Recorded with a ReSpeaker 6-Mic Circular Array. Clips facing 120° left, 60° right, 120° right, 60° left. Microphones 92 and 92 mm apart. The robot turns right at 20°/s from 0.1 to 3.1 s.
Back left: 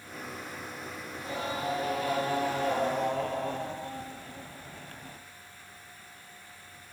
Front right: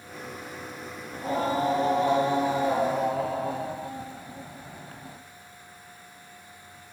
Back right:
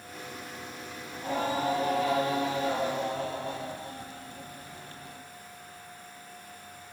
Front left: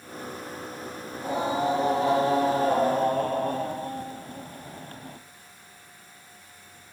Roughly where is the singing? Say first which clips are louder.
Front right 9 dB, front left 3 dB; ahead.